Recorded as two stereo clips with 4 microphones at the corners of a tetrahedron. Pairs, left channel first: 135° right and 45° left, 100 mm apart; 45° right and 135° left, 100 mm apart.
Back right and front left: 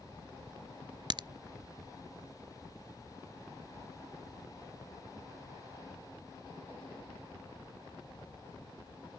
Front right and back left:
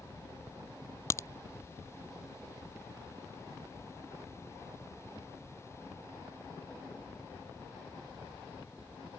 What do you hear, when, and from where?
1.1 s a crack: 15° left